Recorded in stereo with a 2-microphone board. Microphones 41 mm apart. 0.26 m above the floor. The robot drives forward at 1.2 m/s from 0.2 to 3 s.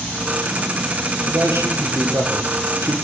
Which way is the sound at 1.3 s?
70° right (ahead or behind).